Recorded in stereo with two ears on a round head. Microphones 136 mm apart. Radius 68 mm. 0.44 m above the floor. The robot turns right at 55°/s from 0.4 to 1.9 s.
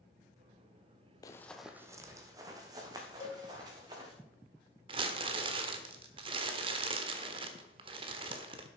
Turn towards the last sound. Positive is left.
turn(degrees=-35)  # may be behind; listen again after turning